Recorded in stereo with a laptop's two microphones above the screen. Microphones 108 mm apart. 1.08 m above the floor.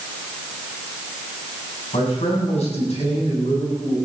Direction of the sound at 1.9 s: 85° left.